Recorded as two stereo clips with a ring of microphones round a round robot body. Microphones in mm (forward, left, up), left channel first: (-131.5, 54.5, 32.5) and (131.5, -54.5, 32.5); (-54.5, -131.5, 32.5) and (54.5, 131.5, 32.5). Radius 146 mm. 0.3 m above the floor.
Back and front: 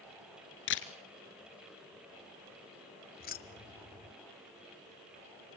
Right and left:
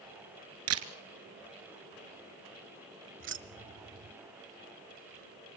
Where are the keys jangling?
105° left, 1.1 m.